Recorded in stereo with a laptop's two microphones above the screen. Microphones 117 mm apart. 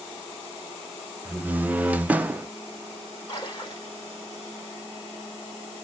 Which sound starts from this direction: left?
A splash, at 3.3 s.